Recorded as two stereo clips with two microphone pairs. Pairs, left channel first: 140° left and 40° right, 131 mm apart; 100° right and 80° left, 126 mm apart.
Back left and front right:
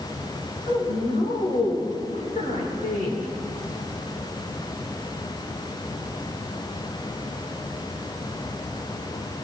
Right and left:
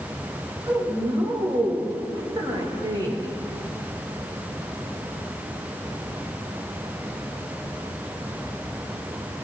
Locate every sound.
0.7 s a woman speaking: 125° left, 7.5 m; by 3.3 s 140° left, 7 m